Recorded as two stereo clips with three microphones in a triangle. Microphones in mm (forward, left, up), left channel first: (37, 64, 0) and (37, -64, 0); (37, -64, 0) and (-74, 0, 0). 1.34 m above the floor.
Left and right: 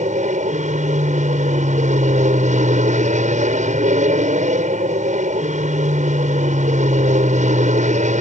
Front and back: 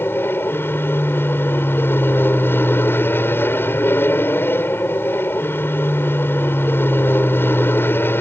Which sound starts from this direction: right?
An aircraft, at 0.0 s.